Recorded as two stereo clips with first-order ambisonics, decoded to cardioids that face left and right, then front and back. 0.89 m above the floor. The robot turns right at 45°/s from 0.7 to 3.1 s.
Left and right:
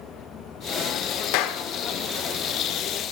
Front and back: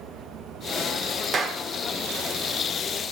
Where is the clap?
110° left, 2.5 m; by 1.6 s 125° left, 2.5 m.